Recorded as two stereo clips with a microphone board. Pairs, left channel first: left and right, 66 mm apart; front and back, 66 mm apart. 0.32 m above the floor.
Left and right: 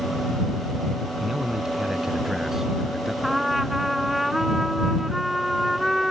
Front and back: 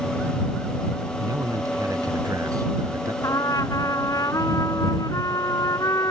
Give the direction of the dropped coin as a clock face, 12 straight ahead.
No dropped coin in this recording.